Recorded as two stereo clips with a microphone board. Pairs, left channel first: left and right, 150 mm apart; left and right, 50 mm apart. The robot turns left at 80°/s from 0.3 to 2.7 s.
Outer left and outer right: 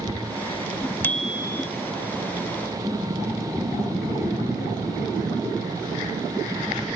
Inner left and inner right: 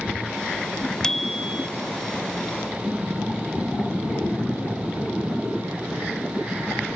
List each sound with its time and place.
1.0 s a bicycle bell: 15° left; by 1.7 s 40° right